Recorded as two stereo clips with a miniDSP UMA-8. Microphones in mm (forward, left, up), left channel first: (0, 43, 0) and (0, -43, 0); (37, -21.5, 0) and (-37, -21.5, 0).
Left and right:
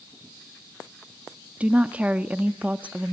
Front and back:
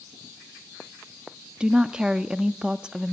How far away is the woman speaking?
About 0.6 m.